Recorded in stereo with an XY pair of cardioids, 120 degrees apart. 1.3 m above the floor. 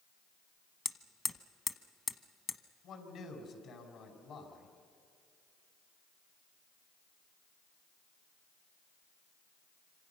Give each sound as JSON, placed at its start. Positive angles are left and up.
{"t": 0.8, "sound": "hammering", "azimuth_deg": 25, "distance_m": 1.1}
{"t": 2.8, "sound": "a man speaking", "azimuth_deg": 60, "distance_m": 5.5}